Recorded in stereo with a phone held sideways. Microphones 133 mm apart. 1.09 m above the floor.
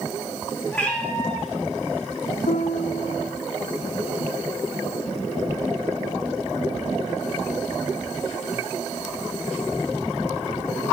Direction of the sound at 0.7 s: 15° left (ahead or behind).